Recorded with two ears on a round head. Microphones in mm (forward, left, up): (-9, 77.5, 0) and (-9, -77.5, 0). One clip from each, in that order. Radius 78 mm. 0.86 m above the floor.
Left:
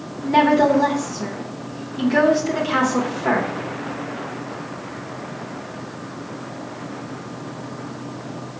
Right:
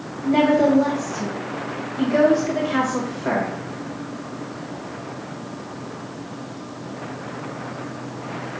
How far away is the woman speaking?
About 0.9 m.